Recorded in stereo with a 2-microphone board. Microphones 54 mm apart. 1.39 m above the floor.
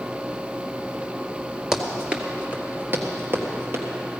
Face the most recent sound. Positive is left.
turn(degrees=-50)  # may be behind; listen again after turning